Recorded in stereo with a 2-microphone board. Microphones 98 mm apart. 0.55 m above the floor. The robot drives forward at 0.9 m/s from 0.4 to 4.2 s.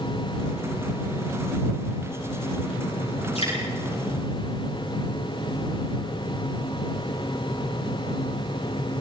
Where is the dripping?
80° left, 8.5 m.